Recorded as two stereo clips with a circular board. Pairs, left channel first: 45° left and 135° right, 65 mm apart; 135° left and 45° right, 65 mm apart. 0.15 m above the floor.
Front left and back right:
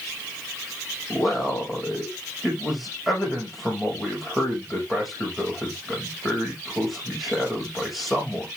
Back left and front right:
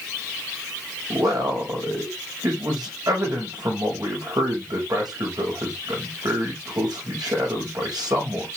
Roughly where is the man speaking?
Ahead right.